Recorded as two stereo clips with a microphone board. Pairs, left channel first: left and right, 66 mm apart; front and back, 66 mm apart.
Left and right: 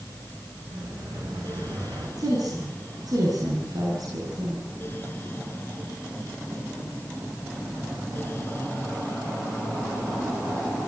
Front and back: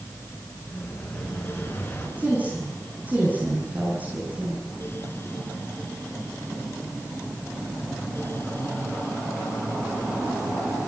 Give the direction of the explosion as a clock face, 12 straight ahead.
2 o'clock.